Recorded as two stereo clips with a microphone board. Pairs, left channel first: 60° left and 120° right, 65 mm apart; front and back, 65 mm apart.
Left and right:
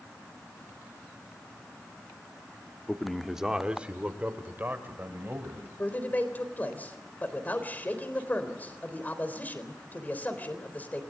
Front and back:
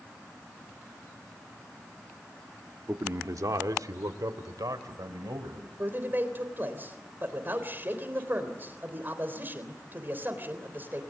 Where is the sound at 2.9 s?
135° left, 1.0 m; by 5.7 s 175° right, 3.5 m.